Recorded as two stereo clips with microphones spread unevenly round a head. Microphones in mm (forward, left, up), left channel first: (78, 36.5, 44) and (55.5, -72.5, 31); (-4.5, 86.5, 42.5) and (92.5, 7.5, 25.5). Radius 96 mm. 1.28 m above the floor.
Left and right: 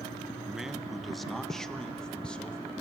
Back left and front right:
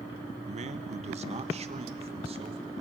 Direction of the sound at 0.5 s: 20° right.